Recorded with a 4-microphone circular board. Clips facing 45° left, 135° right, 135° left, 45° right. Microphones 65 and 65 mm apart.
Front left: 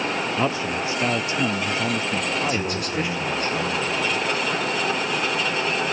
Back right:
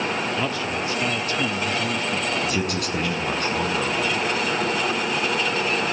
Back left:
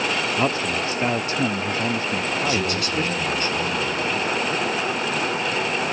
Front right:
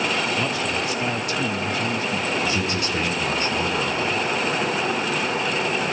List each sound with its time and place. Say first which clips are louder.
0.4 s a man speaking: front left 2 dB, back left 2 dB; 100° left, 0.8 m
2.4 s a man speaking: even, back left 1 dB; 110° right, 7 m